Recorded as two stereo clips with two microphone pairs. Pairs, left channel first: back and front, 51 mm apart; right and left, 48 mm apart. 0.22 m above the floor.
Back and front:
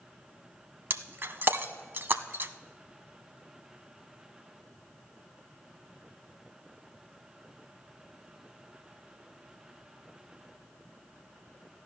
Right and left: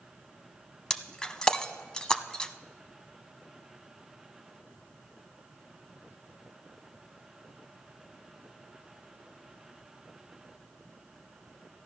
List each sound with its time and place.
0.9 s breaking glass: 20° right, 0.5 m